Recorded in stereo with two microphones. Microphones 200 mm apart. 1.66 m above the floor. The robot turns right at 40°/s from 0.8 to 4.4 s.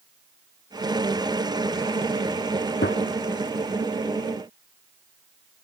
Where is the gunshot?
70° left (ahead or behind); by 3.0 s 65° left (ahead or behind).